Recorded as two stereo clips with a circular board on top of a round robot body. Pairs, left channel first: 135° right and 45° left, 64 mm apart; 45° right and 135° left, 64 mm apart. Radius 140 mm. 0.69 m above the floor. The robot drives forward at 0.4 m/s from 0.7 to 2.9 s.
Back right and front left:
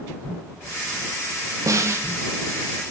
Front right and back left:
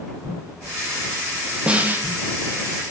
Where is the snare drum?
65° left, 0.5 m; by 2.1 s 85° left, 0.5 m.